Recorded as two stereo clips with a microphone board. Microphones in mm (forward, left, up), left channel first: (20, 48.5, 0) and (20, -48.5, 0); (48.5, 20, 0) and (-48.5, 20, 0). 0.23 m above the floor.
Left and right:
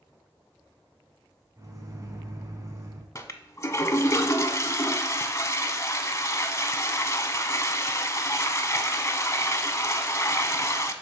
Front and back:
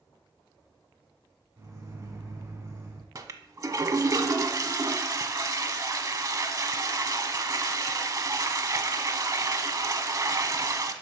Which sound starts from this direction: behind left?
A toilet flushing, at 3.1 s.